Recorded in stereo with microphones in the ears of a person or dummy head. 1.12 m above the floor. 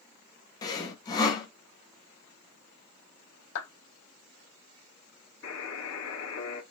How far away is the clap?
About 1.7 m.